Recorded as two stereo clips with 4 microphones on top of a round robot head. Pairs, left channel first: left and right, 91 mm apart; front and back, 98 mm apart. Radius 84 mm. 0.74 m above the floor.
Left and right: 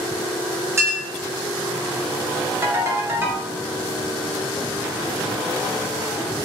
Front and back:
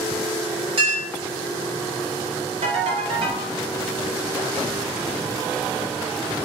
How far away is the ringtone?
About 0.7 m.